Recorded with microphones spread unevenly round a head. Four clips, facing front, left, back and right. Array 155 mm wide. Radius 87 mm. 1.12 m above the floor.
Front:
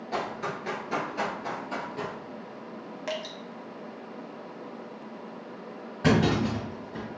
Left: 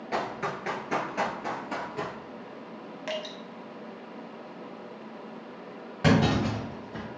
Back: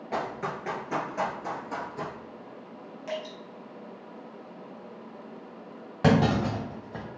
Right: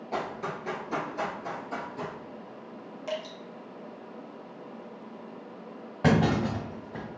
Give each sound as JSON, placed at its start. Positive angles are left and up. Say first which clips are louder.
{"t": 0.1, "sound": "running footsteps", "louder": "left 2 dB, even", "azimuth_deg": 180, "distance_m": 1.1}
{"t": 3.1, "sound": "dripping", "louder": "even, even", "azimuth_deg": 5, "distance_m": 1.1}
{"t": 6.0, "sound": "a clunk", "louder": "left 1 dB, back 1 dB", "azimuth_deg": -160, "distance_m": 1.5}